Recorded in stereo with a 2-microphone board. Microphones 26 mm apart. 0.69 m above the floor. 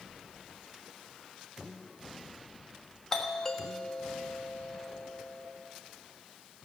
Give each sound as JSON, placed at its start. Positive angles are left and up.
{"t": 3.1, "sound": "a doorbell", "side_deg": 20, "distance_m": 1.4}